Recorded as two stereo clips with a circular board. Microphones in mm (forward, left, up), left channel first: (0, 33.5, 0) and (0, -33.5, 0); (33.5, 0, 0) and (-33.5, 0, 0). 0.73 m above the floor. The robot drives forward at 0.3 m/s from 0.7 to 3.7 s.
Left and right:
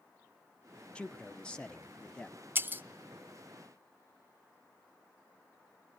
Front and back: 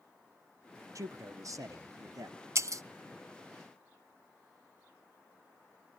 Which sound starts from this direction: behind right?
Breaking glass, at 2.5 s.